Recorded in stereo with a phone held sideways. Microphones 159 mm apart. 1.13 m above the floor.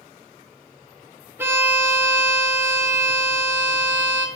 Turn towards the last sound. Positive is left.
turn(degrees=-15)  # may be behind; listen again after turning